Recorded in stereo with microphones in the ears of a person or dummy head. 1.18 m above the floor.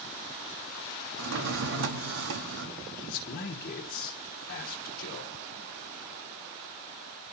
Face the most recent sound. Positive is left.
turn(degrees=55)  # may be behind; listen again after turning